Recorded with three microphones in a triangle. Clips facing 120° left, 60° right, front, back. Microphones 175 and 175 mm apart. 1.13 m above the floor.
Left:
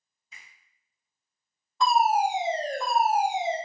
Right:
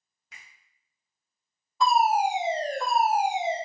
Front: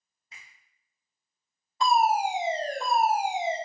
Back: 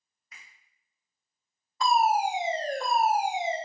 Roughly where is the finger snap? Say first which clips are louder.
Right 1 dB, front 1 dB; ahead right.